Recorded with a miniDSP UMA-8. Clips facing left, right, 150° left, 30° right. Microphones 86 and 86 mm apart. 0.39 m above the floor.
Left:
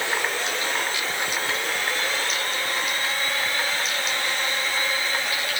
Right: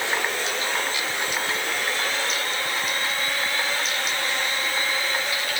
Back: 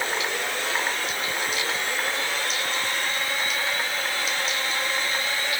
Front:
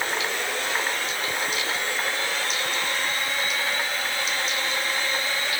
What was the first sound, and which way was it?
Only background noise.